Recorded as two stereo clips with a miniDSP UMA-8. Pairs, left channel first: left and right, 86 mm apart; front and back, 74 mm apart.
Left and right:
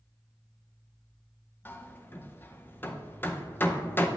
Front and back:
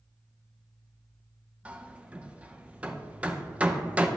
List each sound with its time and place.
1.6 s hammering: 125° left, 0.6 m